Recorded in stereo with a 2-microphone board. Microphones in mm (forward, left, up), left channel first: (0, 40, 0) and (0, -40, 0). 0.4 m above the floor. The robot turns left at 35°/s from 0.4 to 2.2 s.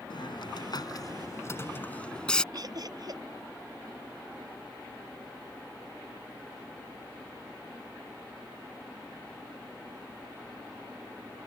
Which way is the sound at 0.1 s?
70° left (ahead or behind).